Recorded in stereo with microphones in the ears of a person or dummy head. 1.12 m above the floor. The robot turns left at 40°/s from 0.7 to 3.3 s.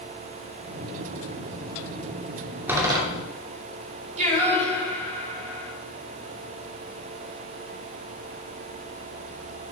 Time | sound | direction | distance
2.7 | a door slam | 15° right (ahead or behind) | 2 m
4.2 | singing | 45° right (ahead or behind) | 3 m